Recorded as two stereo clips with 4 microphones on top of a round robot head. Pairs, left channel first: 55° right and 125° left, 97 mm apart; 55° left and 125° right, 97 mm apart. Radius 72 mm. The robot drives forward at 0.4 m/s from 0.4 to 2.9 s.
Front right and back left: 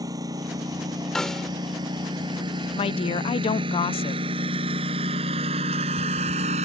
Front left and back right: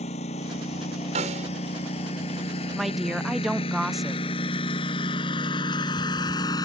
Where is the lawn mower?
70° left; by 6.7 s 110° left.